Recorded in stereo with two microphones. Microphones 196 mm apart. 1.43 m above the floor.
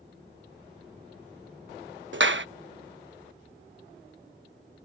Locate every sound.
2.1 s a clap: 70° right (ahead or behind)